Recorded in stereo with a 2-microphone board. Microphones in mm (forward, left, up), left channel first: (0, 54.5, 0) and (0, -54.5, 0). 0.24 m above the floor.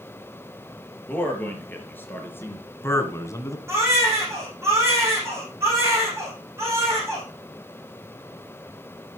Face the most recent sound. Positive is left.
turn(degrees=-25)  # may be behind; listen again after turning